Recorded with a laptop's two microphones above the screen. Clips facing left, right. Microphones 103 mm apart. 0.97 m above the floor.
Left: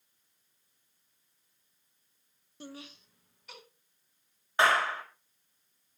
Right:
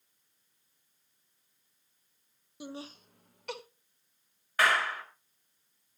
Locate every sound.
2.6 s laughter: 10° right (ahead or behind), 0.7 m; by 3.6 s 75° right (ahead or behind), 1.4 m
4.6 s a clap: 25° left (ahead or behind), 4.5 m